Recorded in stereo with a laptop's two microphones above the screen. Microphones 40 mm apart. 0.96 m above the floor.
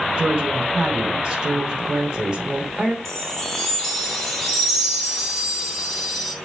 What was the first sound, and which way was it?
A woman speaking, 20° right (ahead or behind).